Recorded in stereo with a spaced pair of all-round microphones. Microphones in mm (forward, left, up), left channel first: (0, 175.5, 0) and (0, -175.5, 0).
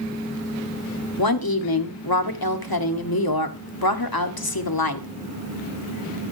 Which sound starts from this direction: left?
A woman speaking, at 1.2 s.